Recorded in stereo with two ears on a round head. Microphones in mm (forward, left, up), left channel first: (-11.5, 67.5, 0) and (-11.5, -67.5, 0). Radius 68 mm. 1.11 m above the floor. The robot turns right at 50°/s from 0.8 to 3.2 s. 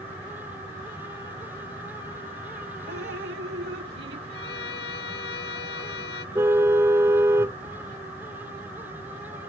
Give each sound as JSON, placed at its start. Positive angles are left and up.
{"t": 2.9, "sound": "dripping", "side_deg": -80}
{"t": 4.3, "sound": "a violin", "side_deg": 70}
{"t": 6.3, "sound": "a car horn", "side_deg": -15}